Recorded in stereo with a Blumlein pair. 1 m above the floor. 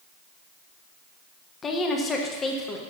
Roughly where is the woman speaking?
Ahead.